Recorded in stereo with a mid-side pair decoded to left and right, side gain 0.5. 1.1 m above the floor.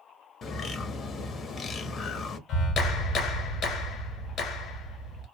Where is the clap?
60° left, 1.9 m.